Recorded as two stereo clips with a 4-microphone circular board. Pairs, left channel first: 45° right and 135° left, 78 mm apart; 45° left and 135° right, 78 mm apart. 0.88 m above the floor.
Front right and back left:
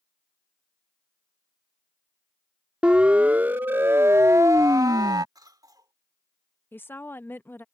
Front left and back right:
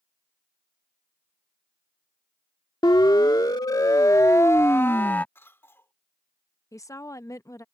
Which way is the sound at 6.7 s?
10° left.